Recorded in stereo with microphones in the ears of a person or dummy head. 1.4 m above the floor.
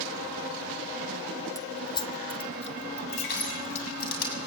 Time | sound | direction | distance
1.6 | keys jangling | 15° left (ahead or behind) | 0.7 m
3.3 | crushing | 50° left (ahead or behind) | 7 m